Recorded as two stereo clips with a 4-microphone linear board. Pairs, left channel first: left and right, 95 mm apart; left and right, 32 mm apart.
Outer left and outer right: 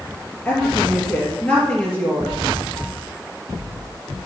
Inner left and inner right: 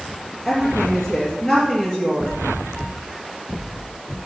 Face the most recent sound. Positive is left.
turn(degrees=20)  # may be behind; listen again after turning